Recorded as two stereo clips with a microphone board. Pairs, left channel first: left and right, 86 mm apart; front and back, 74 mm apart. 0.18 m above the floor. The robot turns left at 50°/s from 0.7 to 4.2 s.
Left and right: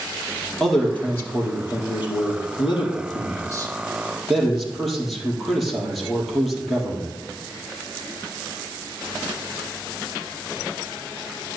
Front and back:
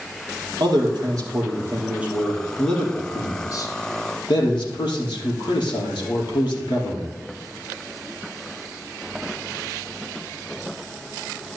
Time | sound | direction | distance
0.6 | a man speaking | 175° left | 4 m